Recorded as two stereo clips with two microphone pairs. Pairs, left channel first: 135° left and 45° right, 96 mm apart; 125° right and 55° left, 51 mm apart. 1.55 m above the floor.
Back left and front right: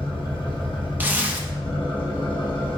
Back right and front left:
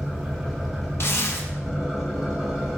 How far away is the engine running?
About 0.9 m.